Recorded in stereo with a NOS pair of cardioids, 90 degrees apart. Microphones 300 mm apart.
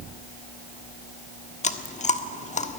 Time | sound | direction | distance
1.6 | chewing | 25° left | 1.3 m